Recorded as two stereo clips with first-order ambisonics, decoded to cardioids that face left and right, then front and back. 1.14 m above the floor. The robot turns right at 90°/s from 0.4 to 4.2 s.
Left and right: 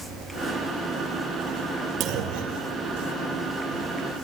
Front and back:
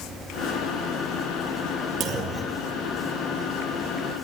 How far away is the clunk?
About 2.5 m.